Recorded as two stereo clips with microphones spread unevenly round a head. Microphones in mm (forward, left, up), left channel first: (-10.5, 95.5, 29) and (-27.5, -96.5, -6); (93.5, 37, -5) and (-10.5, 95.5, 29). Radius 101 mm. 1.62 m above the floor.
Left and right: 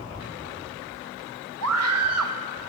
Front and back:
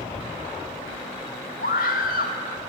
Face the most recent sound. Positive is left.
turn(degrees=-80)